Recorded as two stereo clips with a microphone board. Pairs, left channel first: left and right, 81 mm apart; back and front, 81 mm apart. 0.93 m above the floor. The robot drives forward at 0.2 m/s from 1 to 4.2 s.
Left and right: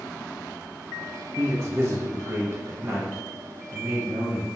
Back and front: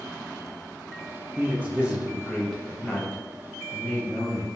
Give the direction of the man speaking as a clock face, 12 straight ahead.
2 o'clock.